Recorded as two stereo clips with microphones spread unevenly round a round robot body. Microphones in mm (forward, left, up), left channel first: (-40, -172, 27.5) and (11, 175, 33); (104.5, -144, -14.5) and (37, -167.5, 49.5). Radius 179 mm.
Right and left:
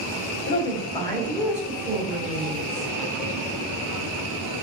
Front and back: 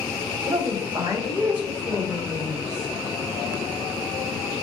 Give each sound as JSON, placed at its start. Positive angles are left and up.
{"t": 0.5, "sound": "a woman speaking", "azimuth_deg": -90, "distance_m": 1.0}